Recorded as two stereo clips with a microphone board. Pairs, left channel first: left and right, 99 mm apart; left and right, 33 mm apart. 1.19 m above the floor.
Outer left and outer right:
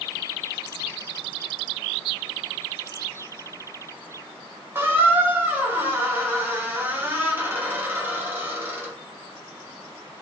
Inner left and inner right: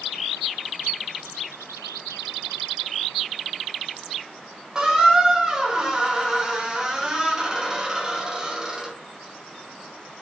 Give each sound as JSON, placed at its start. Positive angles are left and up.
{"t": 4.8, "sound": "a squeak", "side_deg": -20, "distance_m": 1.0}